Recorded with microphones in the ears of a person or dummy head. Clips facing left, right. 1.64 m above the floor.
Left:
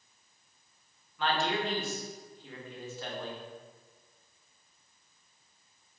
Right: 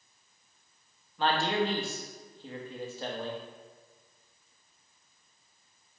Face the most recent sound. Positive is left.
turn(degrees=-40)  # may be behind; listen again after turning